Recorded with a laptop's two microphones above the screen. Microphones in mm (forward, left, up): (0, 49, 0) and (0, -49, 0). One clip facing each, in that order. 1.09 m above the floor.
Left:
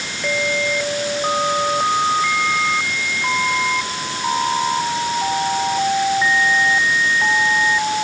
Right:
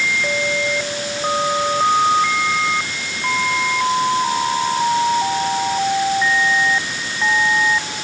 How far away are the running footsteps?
No running footsteps in this recording.